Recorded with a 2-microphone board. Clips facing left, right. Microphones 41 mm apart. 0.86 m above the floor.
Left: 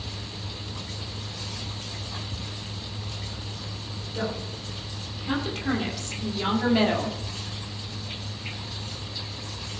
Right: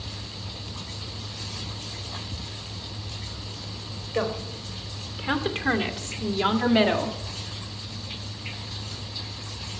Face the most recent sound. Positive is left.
turn(degrees=-10)  # may be behind; listen again after turning